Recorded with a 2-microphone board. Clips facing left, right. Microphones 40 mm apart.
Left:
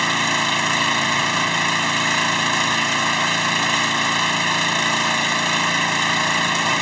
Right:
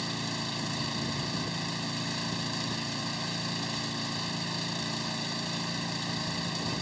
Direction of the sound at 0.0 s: 85° left.